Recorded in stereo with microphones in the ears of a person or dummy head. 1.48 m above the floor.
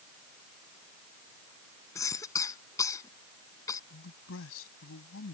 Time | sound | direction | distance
1.9 | a cough | 20° left (ahead or behind) | ?
3.9 | a man speaking | 80° left | ?